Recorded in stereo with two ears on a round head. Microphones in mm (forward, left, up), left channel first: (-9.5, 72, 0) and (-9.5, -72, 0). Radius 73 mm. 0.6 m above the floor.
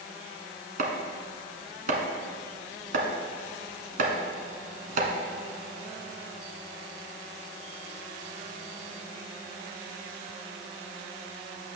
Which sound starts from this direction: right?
Chopping, at 0.8 s.